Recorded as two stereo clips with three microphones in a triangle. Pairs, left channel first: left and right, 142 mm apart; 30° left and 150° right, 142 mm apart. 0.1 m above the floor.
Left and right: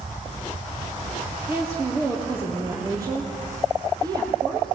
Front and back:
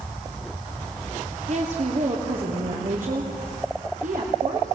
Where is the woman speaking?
160° right, 3 m; by 4.8 s 150° right, 4.5 m.